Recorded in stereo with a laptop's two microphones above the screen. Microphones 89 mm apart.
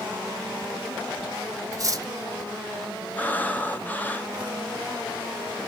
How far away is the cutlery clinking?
About 0.7 m.